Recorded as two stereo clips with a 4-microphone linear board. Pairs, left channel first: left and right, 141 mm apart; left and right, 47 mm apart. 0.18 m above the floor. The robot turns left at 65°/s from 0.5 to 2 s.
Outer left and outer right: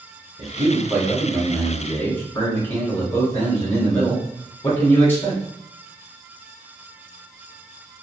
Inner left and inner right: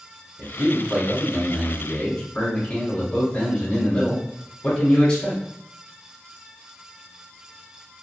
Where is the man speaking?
110° right, 1.2 m; by 5.4 s 150° left, 1.2 m.